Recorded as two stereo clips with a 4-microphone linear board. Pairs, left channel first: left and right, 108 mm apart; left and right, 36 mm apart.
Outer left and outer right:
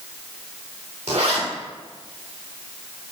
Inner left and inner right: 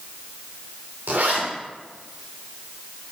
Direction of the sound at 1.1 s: 80° right.